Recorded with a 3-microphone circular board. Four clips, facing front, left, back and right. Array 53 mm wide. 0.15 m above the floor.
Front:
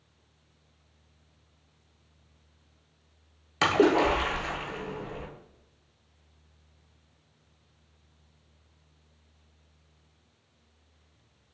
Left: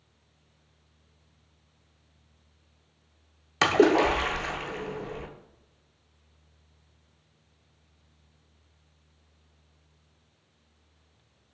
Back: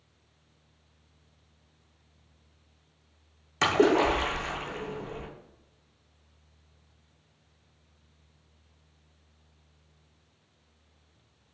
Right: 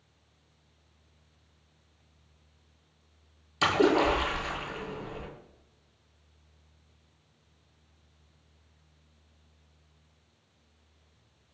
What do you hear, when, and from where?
3.6 s a splash: 80° left, 0.5 m